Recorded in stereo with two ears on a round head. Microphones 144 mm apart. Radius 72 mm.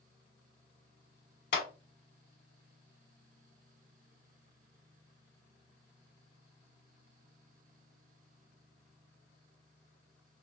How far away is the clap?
About 1.1 m.